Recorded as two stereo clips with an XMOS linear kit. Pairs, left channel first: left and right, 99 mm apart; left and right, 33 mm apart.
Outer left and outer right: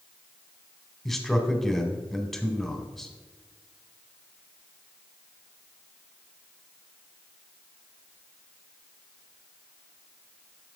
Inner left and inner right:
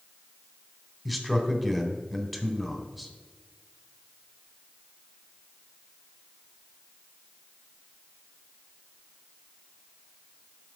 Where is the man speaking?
5° left (ahead or behind), 1.2 m.